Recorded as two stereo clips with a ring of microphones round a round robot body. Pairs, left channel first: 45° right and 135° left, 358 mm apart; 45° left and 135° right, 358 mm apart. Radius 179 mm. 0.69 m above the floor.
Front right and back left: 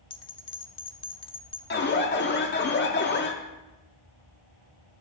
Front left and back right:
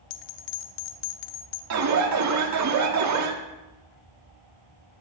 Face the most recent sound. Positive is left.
turn(degrees=-100)